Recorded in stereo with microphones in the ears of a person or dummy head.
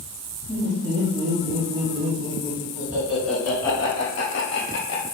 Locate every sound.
0.5 s laughter: 35° right (ahead or behind), 1.8 m; by 5.0 s 65° left (ahead or behind), 0.8 m